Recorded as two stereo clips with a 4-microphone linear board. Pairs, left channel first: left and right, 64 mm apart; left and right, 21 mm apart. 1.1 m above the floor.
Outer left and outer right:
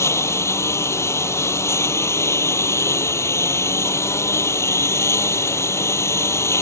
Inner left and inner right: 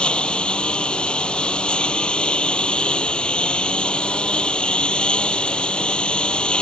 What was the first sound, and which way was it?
A lawn mower, 45° left (ahead or behind).